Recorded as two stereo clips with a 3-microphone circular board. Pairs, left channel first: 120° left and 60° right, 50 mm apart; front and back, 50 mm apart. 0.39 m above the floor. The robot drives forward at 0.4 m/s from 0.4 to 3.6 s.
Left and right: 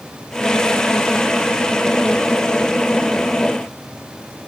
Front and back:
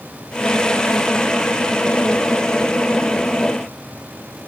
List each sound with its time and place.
Only background noise.